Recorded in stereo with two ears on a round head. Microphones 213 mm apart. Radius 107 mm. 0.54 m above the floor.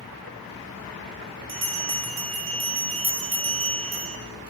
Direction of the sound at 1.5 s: 55° right (ahead or behind).